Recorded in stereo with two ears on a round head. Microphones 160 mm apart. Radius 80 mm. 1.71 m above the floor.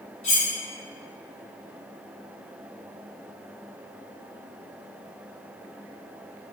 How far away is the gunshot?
I don't hear a gunshot.